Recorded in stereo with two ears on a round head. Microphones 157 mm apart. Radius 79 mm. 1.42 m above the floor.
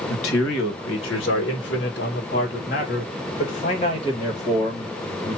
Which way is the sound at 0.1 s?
85° left.